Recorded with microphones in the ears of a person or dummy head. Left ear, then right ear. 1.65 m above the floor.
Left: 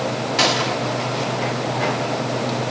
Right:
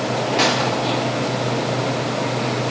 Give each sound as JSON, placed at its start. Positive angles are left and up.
{"t": 0.4, "sound": "a gunshot", "side_deg": 25, "distance_m": 1.0}